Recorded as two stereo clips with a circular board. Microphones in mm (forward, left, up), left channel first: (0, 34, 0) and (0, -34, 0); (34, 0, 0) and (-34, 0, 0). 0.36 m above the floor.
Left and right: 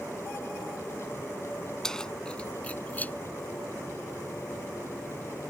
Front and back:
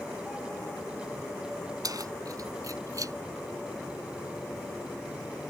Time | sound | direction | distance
1.8 | keys jangling | 170° left | ?